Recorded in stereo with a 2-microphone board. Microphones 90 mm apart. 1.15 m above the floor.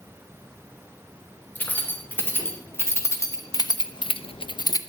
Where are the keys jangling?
20° left (ahead or behind), 3 m; by 4.8 s 40° left (ahead or behind), 0.8 m.